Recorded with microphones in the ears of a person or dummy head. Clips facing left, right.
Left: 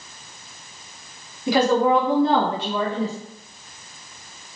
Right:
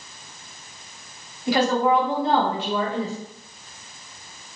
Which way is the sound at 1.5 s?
65° left (ahead or behind).